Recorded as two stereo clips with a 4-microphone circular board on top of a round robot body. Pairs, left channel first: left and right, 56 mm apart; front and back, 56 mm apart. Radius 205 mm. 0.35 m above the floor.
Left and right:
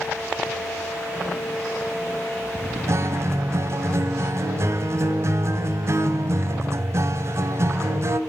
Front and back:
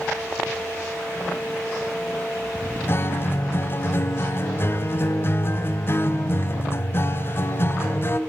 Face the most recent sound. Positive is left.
turn(degrees=-50)